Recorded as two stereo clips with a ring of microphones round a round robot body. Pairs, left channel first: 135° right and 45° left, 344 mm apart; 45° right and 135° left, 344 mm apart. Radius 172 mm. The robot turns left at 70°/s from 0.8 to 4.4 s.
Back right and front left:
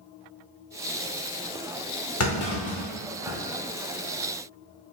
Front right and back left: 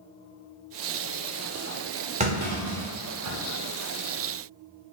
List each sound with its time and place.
2.2 s a clunk: 160° right, 1.0 m; by 3.4 s 120° left, 1.0 m